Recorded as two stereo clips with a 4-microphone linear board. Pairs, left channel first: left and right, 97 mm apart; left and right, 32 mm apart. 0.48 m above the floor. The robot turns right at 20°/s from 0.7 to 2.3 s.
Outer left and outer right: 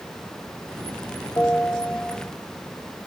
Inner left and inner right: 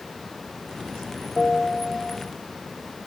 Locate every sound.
1.4 s a bell: 35° left (ahead or behind), 3 m; by 2.2 s 20° left (ahead or behind), 3 m